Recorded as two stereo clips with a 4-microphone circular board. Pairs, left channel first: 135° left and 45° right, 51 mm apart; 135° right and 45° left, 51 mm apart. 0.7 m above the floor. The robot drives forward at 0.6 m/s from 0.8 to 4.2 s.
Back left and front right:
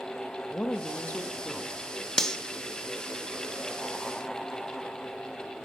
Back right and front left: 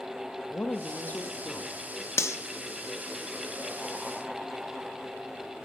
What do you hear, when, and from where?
0.5 s a woman speaking: 175° left, 0.7 m; by 2.1 s straight behind, 1.3 m
2.2 s cutlery clinking: 145° right, 0.6 m; by 2.4 s 150° right, 0.6 m